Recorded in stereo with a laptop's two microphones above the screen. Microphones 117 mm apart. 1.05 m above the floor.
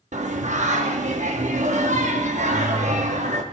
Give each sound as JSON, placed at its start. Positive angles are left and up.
{"t": 0.1, "sound": "singing", "side_deg": -75, "distance_m": 0.9}